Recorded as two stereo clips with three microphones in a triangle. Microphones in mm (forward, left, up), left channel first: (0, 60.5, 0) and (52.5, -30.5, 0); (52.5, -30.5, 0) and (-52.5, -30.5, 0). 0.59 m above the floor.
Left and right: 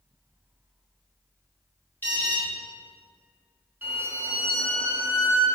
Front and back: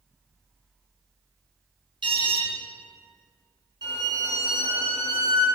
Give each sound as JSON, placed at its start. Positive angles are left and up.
{"t": 2.0, "sound": "an alarm", "azimuth_deg": -175, "distance_m": 1.5}
{"t": 3.8, "sound": "a violin", "azimuth_deg": -130, "distance_m": 1.7}